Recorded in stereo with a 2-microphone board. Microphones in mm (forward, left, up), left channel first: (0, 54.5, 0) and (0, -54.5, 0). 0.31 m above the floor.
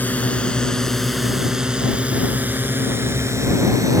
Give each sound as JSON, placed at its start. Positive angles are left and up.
{"t": 0.0, "sound": "a drone", "side_deg": 15}